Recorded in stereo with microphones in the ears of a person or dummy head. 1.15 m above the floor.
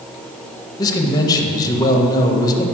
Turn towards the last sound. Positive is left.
turn(degrees=20)  # may be behind; listen again after turning